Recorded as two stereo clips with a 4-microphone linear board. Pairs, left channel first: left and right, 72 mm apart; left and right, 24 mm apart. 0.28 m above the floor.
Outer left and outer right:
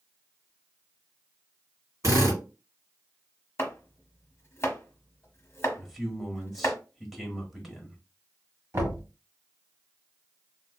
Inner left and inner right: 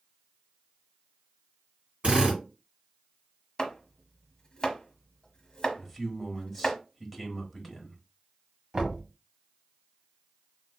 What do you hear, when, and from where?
2.0 s a drill: 50° right (ahead or behind), 2.5 m
3.6 s chopping: 35° left (ahead or behind), 1.0 m
5.8 s a man speaking: 5° right (ahead or behind), 1.0 m
8.7 s knocking: 40° right (ahead or behind), 1.2 m